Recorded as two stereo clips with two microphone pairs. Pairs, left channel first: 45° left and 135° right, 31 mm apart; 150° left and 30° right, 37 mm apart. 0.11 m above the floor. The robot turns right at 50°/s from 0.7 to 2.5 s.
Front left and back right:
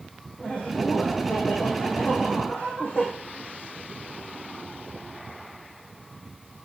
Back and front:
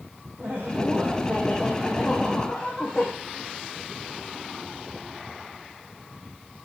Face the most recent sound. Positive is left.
turn(degrees=75)